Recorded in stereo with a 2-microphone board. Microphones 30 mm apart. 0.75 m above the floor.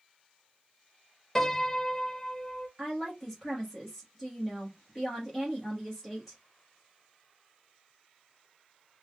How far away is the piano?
About 0.6 m.